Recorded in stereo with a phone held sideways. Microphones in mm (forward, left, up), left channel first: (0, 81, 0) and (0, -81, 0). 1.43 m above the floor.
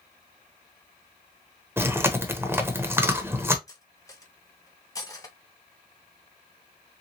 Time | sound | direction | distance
1.8 | chewing | 15° right (ahead or behind) | 0.7 m
3.7 | cutlery clinking | 20° left (ahead or behind) | 0.9 m